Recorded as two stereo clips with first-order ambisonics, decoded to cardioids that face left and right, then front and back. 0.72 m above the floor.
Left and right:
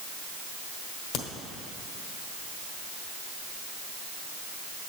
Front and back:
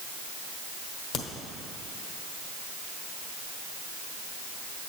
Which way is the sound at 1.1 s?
50° left.